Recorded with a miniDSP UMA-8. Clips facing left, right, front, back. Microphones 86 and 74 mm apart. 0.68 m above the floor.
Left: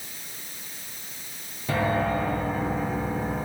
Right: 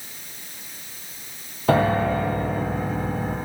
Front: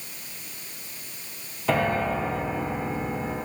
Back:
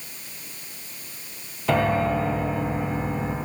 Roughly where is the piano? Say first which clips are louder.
Right 5 dB, back 2 dB; right.